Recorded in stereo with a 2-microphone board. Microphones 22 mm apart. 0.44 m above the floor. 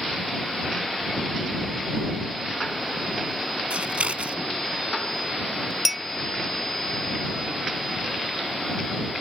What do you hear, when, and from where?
3.7 s scissors: 70° right (ahead or behind)
5.8 s a clink: centre (ahead or behind)